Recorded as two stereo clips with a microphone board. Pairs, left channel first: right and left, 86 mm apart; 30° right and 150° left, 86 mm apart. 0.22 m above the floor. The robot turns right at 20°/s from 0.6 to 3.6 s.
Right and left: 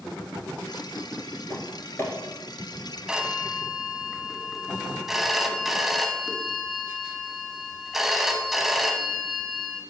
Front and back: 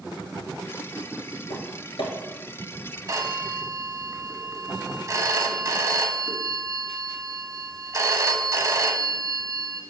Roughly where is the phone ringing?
Behind.